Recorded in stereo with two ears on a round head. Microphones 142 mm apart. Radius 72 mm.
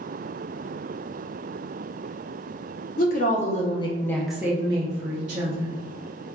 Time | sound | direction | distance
3.0 | a woman speaking | 55° left (ahead or behind) | 0.8 m